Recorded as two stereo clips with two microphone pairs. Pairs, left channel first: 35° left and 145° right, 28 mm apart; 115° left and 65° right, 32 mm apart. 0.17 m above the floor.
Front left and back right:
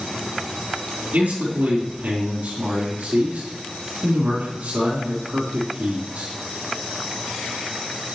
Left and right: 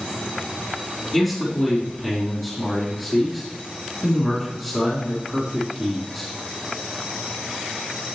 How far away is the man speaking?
About 4 m.